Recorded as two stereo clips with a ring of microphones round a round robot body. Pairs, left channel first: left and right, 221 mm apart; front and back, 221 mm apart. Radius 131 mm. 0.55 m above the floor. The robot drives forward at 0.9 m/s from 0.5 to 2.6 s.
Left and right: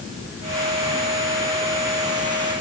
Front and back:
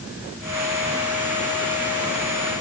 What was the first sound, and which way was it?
Only background noise.